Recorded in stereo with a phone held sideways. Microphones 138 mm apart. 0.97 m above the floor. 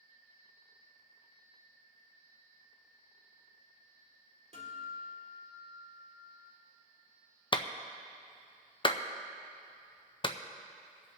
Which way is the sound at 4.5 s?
55° right (ahead or behind).